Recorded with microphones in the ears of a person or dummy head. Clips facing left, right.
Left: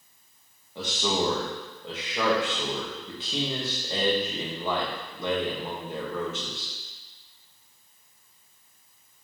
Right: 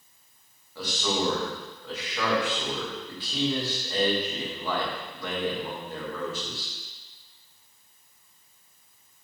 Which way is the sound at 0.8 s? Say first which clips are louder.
Left 1 dB; 20° left (ahead or behind).